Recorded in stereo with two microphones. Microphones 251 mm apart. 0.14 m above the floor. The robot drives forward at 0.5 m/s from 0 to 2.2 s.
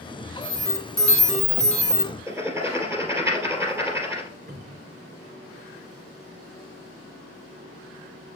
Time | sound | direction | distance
0.4 | an alarm | 15° right (ahead or behind) | 2 m
2.3 | writing | 10° right (ahead or behind) | 2.5 m
4.5 | a cupboard door | 40° right (ahead or behind) | 2 m